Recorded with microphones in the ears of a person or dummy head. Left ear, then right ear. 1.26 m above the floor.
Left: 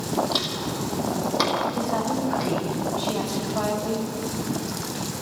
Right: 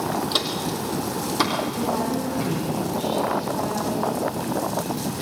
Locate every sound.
0.3 s footsteps: centre (ahead or behind), 3 m; by 2.5 s 25° left (ahead or behind), 4 m
1.8 s a woman speaking: 55° left (ahead or behind), 5.5 m